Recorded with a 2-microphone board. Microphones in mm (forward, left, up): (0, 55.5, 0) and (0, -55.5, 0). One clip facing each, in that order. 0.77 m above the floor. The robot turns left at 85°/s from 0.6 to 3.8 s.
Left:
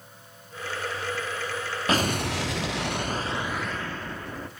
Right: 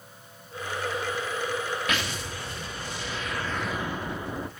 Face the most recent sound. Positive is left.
turn(degrees=-15)